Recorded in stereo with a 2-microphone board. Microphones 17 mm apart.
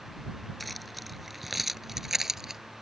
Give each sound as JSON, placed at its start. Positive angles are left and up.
{"t": 0.6, "sound": "keys jangling", "side_deg": 0}